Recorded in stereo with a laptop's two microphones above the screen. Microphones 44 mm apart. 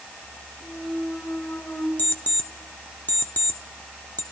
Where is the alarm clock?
40° left (ahead or behind), 0.8 m.